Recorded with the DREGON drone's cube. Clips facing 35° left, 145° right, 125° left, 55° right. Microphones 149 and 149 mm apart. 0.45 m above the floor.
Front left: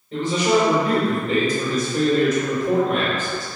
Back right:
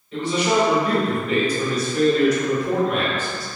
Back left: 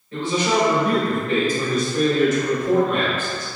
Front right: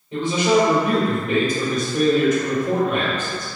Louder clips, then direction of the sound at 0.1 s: Front left 1 dB, front right 3 dB; 10° left.